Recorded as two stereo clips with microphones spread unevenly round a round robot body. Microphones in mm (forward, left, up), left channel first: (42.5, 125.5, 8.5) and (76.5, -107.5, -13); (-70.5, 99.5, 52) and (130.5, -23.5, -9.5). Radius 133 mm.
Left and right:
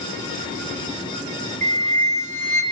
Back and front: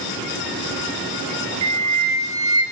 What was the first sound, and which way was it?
A flute, 25° right.